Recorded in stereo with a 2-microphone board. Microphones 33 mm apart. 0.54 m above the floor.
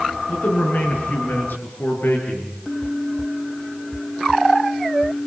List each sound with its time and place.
0.3 s a man speaking: 60° left (ahead or behind), 7.5 m; by 2.6 s 70° left (ahead or behind), 9 m